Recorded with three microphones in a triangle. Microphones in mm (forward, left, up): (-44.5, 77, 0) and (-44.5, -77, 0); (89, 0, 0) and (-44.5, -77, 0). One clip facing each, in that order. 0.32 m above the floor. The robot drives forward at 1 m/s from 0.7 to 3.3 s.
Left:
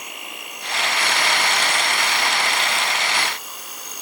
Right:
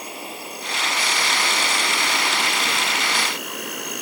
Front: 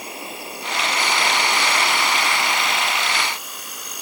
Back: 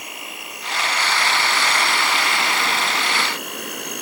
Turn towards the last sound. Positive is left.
turn(degrees=-120)